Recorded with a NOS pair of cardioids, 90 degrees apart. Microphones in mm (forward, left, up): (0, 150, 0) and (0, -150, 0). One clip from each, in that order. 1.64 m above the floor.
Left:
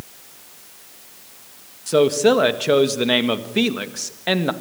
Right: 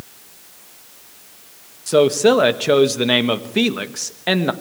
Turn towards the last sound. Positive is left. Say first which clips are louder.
# right 2 dB
turn(degrees=-15)